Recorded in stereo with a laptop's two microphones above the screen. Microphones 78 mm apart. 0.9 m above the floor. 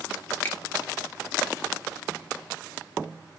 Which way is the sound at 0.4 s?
25° left (ahead or behind).